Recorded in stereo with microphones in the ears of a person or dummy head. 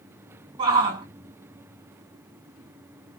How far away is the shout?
About 2.5 m.